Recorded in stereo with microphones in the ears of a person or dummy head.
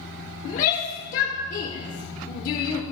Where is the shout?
40° left (ahead or behind), 0.9 m.